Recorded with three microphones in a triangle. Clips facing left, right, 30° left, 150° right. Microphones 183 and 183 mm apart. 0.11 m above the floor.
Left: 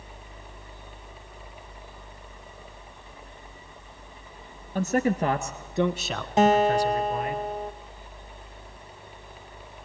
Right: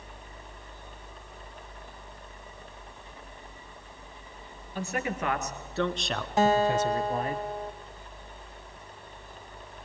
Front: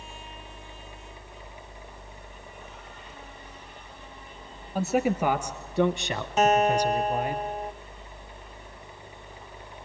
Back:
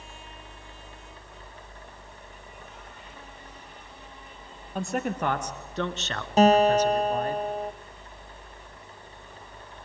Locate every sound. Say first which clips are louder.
4.8 s a man speaking: left 8 dB, front 5 dB; 115° left, 1.8 m; by 7.4 s 45° right, 1.9 m
6.4 s a guitar: left 4 dB, back 4 dB; 160° left, 1.2 m